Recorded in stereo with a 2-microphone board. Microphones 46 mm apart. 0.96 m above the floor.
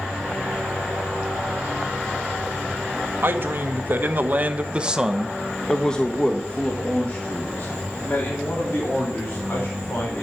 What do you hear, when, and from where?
3.2 s a man speaking: 55° right (ahead or behind), 1.7 m; by 10.2 s 45° left (ahead or behind), 4.5 m